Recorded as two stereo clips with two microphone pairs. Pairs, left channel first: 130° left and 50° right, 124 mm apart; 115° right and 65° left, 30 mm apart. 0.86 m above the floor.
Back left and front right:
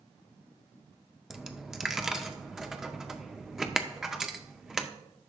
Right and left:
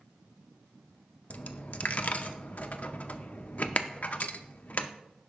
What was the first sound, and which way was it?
A dropped coin, 130° right.